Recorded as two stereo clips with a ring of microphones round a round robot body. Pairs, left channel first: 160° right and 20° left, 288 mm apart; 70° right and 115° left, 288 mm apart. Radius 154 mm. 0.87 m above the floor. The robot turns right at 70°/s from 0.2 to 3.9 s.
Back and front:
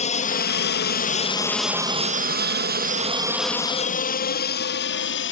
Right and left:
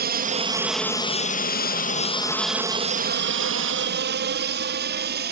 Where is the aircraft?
150° left; by 5.3 s 165° left.